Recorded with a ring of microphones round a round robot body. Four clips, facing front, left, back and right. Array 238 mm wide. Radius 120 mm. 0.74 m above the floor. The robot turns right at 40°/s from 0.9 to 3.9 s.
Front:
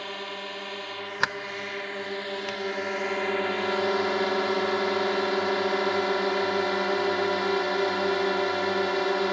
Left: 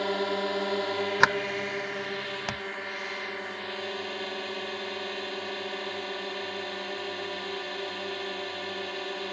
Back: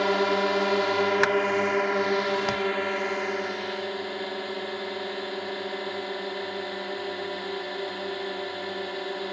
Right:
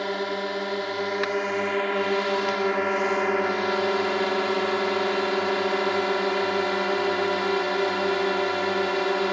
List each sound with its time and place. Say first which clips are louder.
0.0 s a drone: right 1 dB, back 13 dB; 175° right; by 9.3 s 55° right
1.2 s a sliding door: left 1 dB, back 9 dB; 95° left; by 2.6 s 150° left